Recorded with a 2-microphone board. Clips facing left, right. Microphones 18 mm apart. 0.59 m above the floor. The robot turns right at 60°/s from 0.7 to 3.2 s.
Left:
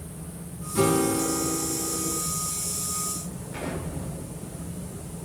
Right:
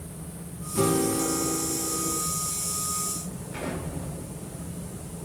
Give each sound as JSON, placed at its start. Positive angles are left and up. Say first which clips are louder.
{"t": 0.8, "sound": "a guitar", "louder": "left 2 dB", "azimuth_deg": 100, "distance_m": 1.4}
{"t": 3.5, "sound": "an explosion", "louder": "even", "side_deg": -70, "distance_m": 3.5}